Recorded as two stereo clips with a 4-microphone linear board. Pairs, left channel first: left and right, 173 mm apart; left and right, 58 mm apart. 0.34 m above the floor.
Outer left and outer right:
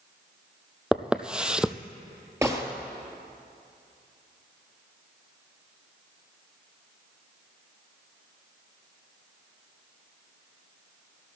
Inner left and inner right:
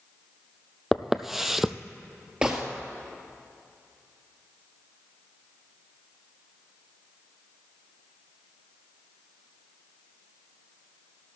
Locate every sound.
0.9 s footsteps: 5° right (ahead or behind), 0.5 m
2.4 s a gunshot: 15° right (ahead or behind), 1.6 m